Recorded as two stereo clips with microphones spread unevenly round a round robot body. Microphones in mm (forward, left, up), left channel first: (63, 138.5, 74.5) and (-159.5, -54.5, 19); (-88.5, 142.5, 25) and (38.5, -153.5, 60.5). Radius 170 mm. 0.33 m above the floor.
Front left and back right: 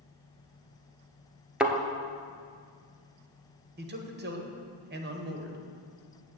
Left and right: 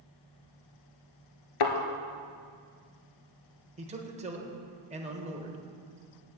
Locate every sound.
1.6 s a thud: 130° left, 1.1 m
3.8 s a man speaking: 135° right, 1.2 m